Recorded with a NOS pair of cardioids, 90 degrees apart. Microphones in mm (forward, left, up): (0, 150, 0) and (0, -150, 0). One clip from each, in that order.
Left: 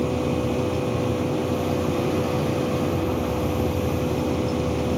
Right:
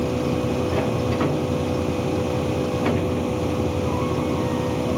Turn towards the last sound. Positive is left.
turn(degrees=-5)